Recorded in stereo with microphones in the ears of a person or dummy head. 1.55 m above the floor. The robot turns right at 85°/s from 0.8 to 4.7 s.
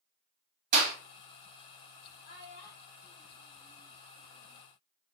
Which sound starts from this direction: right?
A clap, at 0.7 s.